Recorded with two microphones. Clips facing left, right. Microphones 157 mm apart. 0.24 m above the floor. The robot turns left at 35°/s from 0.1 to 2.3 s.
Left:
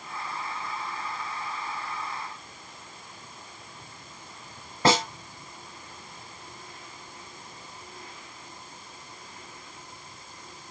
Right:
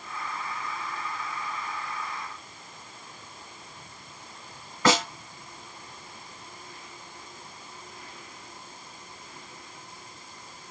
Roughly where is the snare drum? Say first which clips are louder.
Left 1 dB; left.